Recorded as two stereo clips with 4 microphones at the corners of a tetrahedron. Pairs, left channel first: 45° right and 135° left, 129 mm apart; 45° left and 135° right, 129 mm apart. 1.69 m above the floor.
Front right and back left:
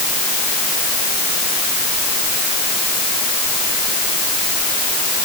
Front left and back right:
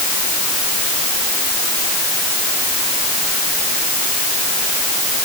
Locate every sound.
Only background noise.